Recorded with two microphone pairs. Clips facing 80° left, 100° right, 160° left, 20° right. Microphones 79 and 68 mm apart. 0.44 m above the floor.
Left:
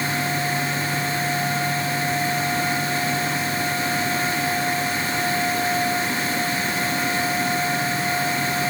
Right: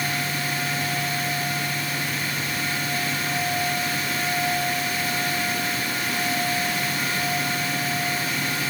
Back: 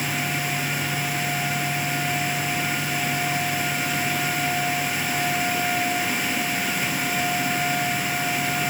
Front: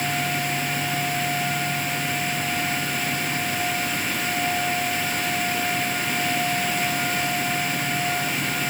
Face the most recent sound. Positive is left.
No sound to turn to.